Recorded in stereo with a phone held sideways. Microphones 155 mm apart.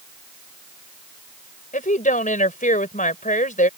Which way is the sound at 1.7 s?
60° left (ahead or behind).